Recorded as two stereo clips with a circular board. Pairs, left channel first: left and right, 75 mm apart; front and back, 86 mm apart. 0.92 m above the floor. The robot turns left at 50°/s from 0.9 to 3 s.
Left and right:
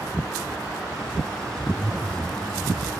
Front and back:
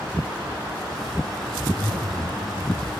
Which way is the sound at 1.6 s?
140° right.